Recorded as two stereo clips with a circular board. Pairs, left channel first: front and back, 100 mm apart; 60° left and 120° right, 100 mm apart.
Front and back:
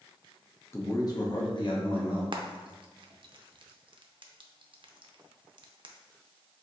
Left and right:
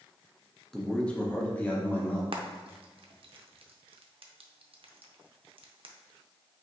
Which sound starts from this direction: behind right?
Frying, at 2.3 s.